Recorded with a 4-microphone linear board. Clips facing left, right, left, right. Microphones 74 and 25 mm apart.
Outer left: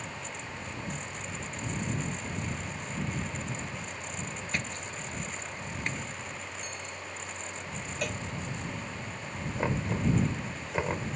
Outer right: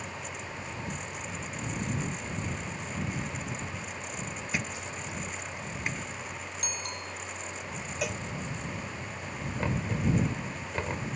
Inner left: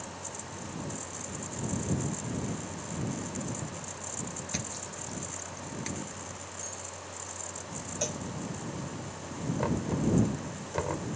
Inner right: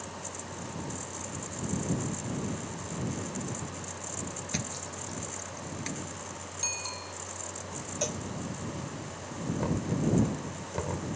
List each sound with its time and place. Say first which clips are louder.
4.5 s a thud: outer right 2 dB, inner right 1 dB; 5° right (ahead or behind)
6.6 s a bicycle bell: outer right 2 dB, inner right 6 dB; 85° right
8.0 s a cowbell: outer right 1 dB, inner right 1 dB; 5° right (ahead or behind)
9.6 s knocking: outer left 1 dB, inner left 1 dB; 15° left (ahead or behind)